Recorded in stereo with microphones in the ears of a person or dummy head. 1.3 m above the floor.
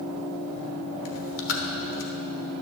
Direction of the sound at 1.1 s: 70° left (ahead or behind).